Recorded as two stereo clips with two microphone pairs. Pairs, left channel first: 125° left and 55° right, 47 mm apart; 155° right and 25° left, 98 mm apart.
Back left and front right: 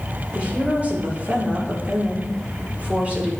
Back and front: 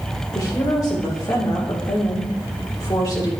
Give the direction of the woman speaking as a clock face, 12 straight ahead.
4 o'clock.